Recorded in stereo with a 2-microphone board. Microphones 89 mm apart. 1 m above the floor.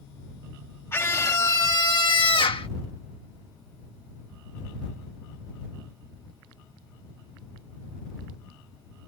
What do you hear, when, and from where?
0.9 s a scream: 30° left (ahead or behind); by 2.7 s 70° left (ahead or behind)